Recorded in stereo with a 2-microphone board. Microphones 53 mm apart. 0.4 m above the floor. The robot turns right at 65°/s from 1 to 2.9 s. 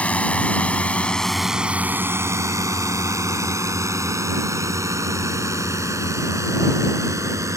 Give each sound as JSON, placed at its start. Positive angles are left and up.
{"t": 0.0, "sound": "a drone", "side_deg": 25}